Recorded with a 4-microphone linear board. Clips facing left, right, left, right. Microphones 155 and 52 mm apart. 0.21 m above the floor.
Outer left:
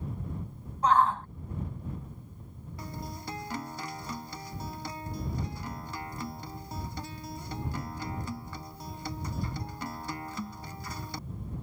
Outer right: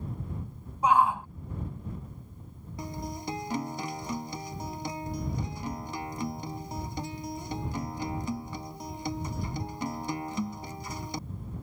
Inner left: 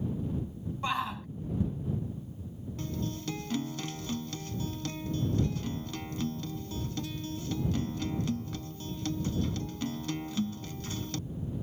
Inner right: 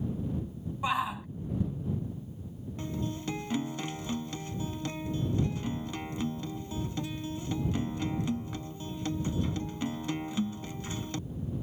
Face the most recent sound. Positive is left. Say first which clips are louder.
# outer right 4 dB, inner right 1 dB
turn(degrees=-20)  # may be behind; listen again after turning